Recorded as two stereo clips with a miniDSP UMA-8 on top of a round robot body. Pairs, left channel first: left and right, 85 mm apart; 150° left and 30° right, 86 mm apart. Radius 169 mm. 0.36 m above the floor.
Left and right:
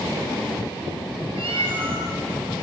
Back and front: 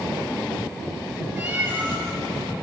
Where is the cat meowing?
95° right, 6 m.